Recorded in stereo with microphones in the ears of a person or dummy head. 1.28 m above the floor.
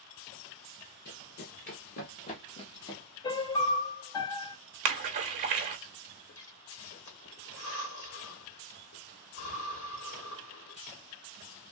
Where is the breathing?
70° left (ahead or behind), 1.3 m.